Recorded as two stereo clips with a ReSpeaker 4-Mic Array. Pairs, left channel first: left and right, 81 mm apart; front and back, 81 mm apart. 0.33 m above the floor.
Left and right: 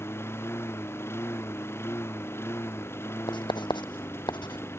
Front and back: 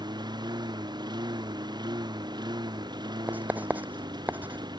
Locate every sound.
0.0 s a lawn mower: 150° left
3.3 s writing: 110° left